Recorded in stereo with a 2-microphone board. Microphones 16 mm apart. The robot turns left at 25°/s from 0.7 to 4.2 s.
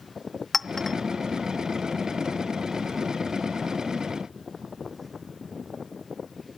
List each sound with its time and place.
0.5 s a clink: 20° left (ahead or behind), 0.6 m